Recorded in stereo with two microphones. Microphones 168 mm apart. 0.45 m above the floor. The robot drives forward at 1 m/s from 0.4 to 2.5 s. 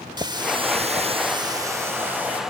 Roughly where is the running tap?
Right.